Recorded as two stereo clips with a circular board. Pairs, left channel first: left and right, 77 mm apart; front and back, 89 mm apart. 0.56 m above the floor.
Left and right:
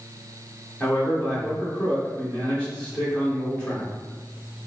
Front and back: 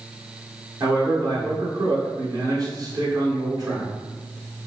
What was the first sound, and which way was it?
A man speaking, 160° left.